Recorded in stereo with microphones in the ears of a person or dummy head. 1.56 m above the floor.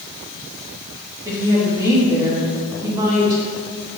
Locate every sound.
1.2 s a woman speaking: 15° right (ahead or behind), 2.0 m